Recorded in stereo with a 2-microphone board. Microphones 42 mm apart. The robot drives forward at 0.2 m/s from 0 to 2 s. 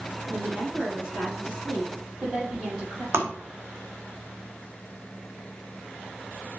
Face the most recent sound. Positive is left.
turn(degrees=-70)  # may be behind; listen again after turning